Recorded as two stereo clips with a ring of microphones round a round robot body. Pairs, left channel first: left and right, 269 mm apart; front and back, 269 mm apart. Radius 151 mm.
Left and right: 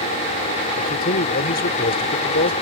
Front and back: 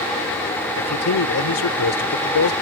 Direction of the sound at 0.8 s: 30° left.